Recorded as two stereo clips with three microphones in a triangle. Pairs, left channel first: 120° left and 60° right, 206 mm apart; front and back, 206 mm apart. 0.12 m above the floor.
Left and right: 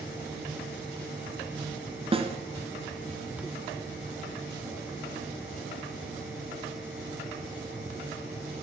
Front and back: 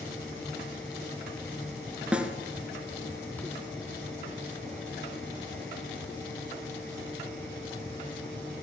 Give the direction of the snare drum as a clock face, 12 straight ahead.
3 o'clock.